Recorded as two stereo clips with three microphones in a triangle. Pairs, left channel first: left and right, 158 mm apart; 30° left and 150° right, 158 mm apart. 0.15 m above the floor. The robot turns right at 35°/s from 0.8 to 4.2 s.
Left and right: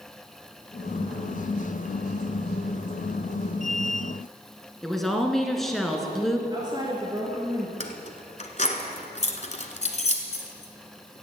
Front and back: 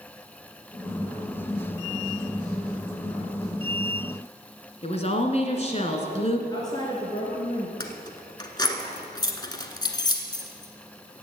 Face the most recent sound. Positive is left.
turn(degrees=80)